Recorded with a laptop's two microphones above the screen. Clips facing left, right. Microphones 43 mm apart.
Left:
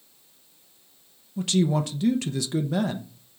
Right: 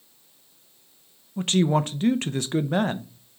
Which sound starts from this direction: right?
A man speaking, at 1.4 s.